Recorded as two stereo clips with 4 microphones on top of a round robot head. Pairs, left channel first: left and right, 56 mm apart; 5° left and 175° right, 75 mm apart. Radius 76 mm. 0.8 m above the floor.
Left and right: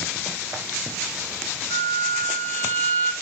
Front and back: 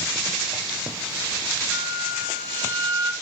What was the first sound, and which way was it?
A flute, 65° left.